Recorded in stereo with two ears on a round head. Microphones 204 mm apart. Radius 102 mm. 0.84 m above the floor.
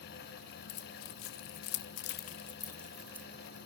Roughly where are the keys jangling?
Left.